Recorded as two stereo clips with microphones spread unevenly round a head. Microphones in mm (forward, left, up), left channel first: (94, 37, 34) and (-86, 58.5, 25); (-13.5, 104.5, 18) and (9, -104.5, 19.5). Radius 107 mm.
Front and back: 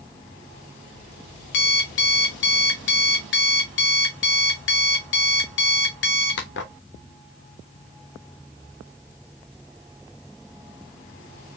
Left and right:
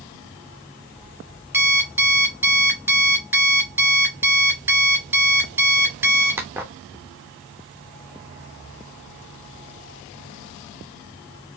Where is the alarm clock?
5° right, 1.1 m.